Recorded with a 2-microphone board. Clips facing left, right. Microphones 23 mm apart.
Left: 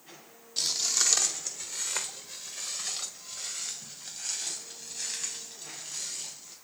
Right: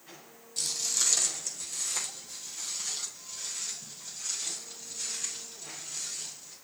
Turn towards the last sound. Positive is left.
turn(degrees=35)  # may be behind; listen again after turning